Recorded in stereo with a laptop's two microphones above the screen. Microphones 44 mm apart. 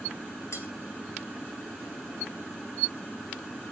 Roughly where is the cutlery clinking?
Left.